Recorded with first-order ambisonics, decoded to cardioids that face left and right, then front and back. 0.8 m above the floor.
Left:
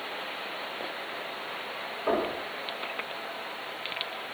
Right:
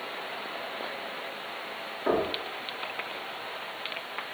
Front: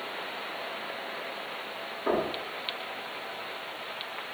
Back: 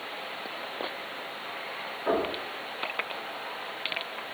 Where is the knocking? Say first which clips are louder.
Right 1 dB, back 1 dB; 80° right, 1.3 m.